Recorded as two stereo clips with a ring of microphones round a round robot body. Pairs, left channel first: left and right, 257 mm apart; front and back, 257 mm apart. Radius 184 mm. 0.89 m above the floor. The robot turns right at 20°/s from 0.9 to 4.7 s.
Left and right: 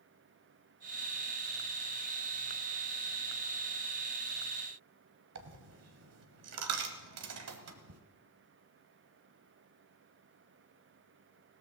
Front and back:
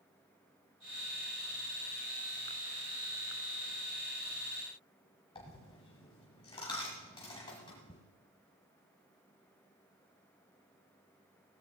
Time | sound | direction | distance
5.3 | a dropped coin | 75° right | 1.3 m